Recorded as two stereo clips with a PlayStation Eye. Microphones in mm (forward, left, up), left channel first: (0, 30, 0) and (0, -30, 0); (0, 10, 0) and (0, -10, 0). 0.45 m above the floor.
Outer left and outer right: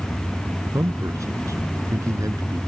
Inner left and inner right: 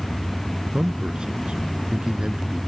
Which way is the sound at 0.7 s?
65° right (ahead or behind).